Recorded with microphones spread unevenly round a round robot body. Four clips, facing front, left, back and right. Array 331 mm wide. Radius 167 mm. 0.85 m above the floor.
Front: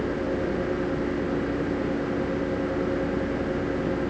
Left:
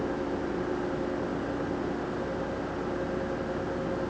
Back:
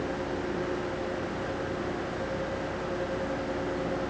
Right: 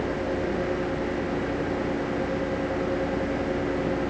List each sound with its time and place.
Only background noise.